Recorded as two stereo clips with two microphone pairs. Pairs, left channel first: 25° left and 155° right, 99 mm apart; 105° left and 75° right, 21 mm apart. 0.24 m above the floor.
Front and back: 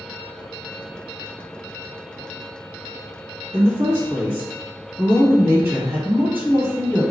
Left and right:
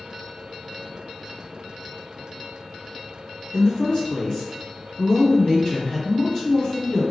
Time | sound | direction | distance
3.5 | a woman speaking | 150° left | 1.3 m